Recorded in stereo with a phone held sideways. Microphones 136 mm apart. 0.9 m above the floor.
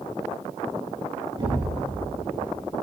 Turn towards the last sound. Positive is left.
turn(degrees=-35)  # may be behind; listen again after turning